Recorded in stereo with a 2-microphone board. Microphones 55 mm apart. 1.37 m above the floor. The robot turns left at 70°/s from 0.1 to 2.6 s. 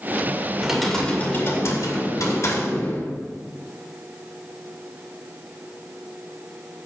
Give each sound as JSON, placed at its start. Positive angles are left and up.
{"t": 0.6, "sound": "typing on a keyboard", "azimuth_deg": -165, "distance_m": 2.5}